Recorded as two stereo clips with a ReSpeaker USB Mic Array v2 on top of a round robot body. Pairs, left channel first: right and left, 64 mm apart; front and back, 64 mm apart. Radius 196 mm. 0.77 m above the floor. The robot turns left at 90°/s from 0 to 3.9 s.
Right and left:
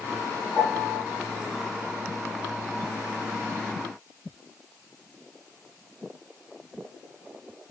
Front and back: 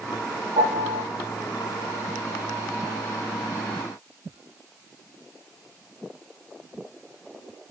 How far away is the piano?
About 0.7 m.